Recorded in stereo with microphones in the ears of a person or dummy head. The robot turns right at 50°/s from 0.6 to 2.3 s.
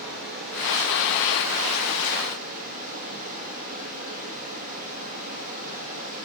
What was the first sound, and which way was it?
Running water, 130° right.